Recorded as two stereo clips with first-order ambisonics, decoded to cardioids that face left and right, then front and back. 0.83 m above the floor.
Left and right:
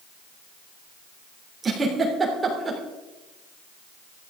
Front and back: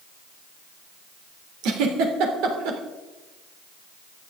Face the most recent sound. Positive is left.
turn(degrees=-165)